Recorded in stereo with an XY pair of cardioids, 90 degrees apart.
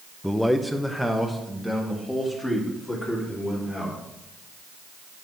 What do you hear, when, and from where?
0.2 s a man speaking: 5° left, 0.6 m; by 4.0 s straight ahead, 4.5 m